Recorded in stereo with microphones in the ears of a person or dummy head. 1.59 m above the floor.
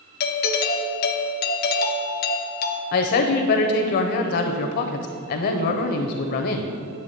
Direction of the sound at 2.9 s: 50° left (ahead or behind).